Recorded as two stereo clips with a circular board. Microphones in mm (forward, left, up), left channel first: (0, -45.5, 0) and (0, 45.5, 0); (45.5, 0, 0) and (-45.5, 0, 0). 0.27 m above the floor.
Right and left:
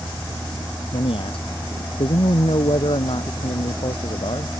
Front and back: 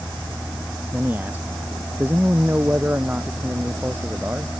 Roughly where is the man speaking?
Right.